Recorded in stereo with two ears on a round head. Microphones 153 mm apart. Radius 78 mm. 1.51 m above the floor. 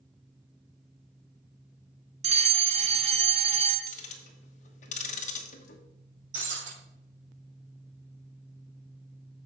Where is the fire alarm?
40° right (ahead or behind), 1.1 m.